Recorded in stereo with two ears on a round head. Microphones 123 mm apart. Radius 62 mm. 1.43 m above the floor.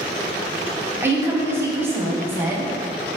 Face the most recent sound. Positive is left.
turn(degrees=-15)  # may be behind; listen again after turning